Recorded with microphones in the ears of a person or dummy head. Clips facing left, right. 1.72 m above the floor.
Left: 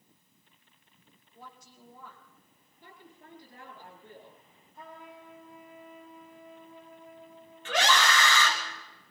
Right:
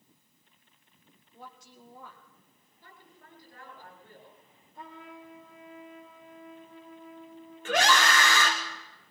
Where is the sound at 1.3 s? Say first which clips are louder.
Right 2 dB; 55° right (ahead or behind), 2 m.